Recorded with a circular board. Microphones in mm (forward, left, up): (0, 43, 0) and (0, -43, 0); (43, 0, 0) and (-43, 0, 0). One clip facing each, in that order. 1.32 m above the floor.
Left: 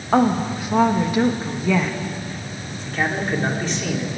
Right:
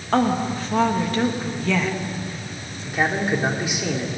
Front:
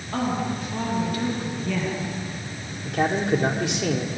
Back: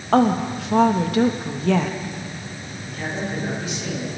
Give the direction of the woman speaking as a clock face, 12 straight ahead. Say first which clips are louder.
Left 2 dB, back 8 dB; 6 o'clock.